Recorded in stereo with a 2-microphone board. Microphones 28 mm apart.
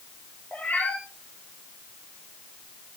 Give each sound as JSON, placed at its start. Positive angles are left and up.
{"t": 0.5, "sound": "a cat meowing", "side_deg": 70, "distance_m": 8.0}